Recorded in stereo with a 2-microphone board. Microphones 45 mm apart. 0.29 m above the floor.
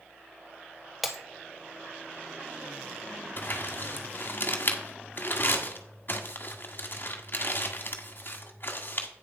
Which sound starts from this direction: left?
Crumpling, at 3.4 s.